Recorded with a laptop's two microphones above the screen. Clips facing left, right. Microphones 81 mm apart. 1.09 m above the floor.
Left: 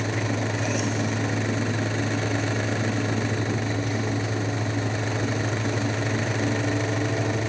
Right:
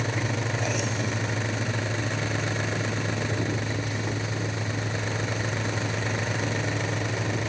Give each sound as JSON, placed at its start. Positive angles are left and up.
{"t": 0.0, "sound": "a fan", "side_deg": 45}